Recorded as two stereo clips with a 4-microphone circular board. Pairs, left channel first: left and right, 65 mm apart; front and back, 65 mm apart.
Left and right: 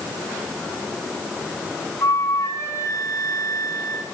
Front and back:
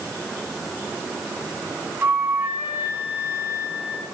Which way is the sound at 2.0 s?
120° left.